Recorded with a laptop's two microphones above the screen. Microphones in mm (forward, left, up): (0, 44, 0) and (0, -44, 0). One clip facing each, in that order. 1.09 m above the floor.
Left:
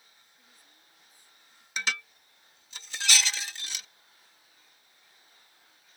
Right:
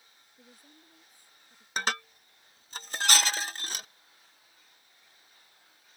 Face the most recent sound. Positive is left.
turn(degrees=-45)  # may be behind; listen again after turning